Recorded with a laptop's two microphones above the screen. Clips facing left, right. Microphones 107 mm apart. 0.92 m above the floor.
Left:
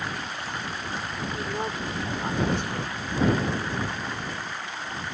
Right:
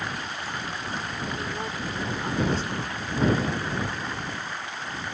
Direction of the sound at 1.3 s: 20° left (ahead or behind).